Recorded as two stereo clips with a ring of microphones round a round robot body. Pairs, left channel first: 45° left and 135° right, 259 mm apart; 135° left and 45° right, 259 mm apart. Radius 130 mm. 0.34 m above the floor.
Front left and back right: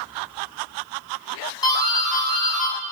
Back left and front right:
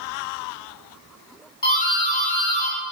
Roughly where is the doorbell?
Left.